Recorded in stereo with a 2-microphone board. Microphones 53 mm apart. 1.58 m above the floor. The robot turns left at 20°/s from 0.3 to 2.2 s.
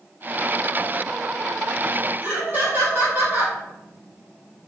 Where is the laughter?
20° right (ahead or behind), 1.2 m.